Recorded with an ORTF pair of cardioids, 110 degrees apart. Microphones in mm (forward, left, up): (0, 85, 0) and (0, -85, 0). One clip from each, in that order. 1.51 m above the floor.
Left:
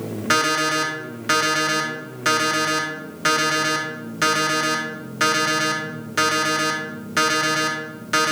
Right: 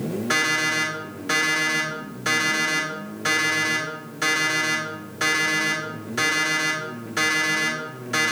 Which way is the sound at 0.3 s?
45° left.